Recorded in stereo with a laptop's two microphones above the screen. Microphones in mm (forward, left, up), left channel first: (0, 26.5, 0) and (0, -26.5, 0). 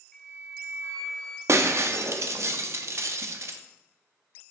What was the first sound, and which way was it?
A flute, 10° left (ahead or behind).